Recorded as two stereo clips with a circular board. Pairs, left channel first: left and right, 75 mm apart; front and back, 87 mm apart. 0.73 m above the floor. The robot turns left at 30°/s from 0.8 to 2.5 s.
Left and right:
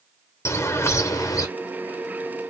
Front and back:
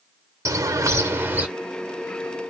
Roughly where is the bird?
Behind left.